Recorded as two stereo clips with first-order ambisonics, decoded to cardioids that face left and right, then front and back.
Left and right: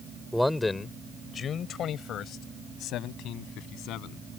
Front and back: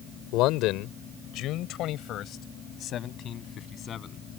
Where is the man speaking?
Straight ahead; by 4.2 s 60° left.